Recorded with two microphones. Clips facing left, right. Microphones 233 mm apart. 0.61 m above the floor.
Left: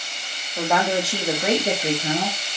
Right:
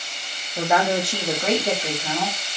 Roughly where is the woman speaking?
Centre.